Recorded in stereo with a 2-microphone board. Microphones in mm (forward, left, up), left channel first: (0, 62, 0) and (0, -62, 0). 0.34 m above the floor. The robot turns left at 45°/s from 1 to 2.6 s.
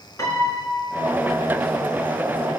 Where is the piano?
20° left (ahead or behind), 4 m; by 1.4 s 40° left (ahead or behind), 4 m.